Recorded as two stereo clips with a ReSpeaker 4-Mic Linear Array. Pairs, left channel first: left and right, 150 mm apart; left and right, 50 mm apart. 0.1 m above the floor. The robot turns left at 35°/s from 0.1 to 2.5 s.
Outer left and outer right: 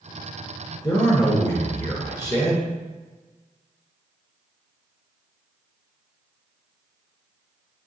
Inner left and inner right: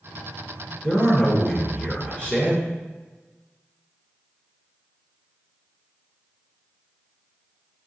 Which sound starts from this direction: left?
A man speaking, at 0.8 s.